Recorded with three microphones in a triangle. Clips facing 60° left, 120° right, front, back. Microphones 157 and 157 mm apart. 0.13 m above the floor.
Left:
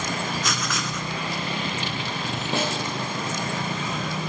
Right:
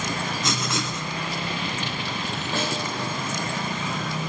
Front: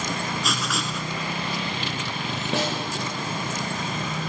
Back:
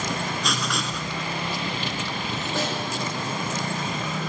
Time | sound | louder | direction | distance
0.4 | writing | right 1 dB, even | 85° right | 0.6 m
2.5 | a snare drum | left 2 dB, front 2 dB | 10° right | 3.5 m